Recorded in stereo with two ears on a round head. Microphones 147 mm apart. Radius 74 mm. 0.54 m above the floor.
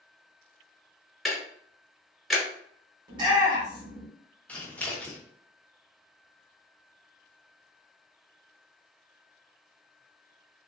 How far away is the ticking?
About 0.8 m.